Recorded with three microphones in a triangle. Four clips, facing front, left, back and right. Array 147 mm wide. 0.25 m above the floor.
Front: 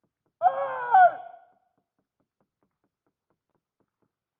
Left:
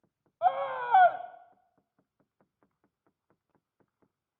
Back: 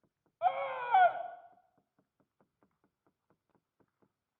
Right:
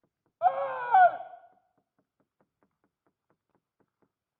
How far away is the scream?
About 1.1 m.